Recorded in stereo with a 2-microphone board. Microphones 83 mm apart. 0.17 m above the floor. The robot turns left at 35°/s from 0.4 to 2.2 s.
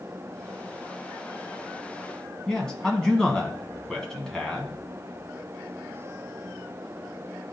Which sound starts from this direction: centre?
A man speaking, at 2.5 s.